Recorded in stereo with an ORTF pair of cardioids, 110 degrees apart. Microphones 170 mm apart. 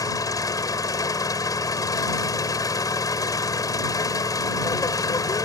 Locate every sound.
0.0 s an engine running: 20° left